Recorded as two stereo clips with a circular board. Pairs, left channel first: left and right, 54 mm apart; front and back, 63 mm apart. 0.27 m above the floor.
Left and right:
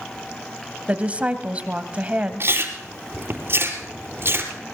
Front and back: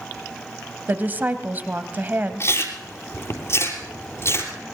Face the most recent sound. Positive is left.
turn(degrees=-45)